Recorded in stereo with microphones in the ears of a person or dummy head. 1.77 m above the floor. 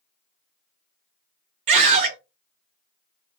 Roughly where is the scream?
Right.